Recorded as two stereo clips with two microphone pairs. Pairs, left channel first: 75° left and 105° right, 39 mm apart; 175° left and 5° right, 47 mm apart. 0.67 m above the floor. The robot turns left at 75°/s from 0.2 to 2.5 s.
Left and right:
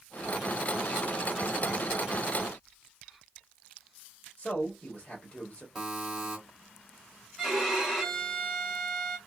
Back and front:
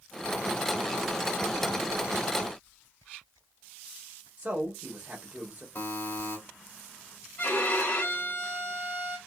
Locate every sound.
4.4 s a man speaking: 50° left, 1.3 m
5.8 s a buzzer: 175° left, 1.7 m
7.4 s a violin: 155° left, 1.6 m